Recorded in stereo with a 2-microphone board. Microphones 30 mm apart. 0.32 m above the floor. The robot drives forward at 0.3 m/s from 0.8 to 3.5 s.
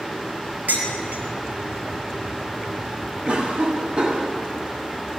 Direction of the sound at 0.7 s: 80° right.